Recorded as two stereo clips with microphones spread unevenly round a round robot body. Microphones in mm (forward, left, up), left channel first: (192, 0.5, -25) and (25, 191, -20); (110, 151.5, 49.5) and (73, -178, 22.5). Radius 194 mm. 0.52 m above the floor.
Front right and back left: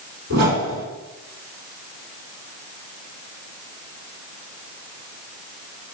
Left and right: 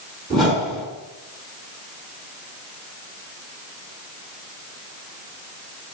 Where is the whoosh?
175° right, 3 m.